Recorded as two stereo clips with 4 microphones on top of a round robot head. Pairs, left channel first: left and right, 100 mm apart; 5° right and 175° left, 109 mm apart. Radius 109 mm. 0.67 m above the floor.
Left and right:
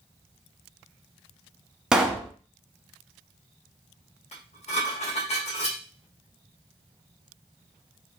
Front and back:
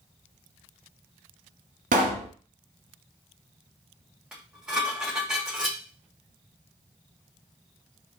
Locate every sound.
1.9 s a pop: 170° right, 1.0 m
4.3 s dishes clattering: 90° left, 2.5 m